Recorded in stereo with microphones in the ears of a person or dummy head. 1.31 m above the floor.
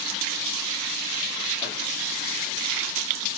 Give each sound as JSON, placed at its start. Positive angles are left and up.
{"t": 1.6, "sound": "a microwave", "side_deg": 30, "distance_m": 1.4}